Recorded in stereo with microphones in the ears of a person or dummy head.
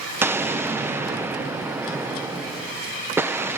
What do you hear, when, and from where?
0.2 s an explosion: 5° right (ahead or behind), 0.5 m